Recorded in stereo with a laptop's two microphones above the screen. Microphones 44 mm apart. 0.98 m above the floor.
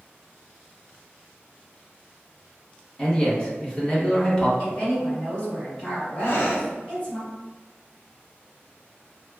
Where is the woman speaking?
30° left (ahead or behind), 1.5 m.